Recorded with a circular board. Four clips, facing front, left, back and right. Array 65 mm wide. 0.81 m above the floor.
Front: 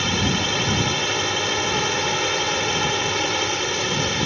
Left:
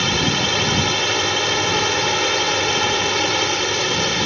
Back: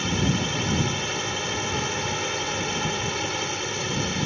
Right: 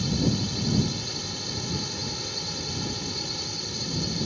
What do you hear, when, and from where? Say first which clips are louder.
0.0 s a drone: left 7 dB, front 3 dB; 70° left